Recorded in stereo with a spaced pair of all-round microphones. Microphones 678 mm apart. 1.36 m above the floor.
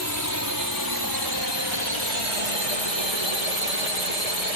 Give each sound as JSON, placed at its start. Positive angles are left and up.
{"t": 0.0, "sound": "a drone", "side_deg": -25}